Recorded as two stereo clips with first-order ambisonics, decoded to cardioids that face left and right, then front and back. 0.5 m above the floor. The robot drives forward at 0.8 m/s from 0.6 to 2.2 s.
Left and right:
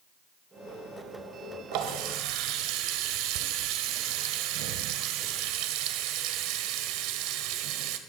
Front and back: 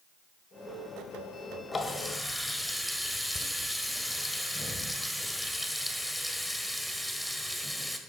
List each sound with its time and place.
1.7 s a running tap: 70° right, 1.5 m; by 8.0 s 85° right, 1.4 m